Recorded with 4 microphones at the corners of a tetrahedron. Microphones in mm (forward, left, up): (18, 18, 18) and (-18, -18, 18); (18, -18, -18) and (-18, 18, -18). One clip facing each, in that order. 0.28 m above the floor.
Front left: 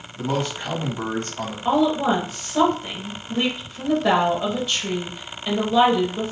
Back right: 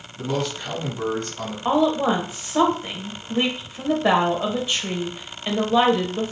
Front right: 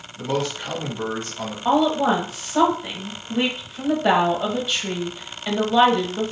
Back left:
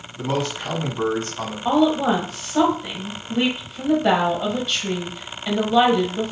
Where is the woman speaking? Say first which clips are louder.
Even, even; 125° right, 0.9 m.